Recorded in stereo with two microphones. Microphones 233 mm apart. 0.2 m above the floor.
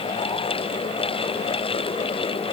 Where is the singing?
No singing in this recording.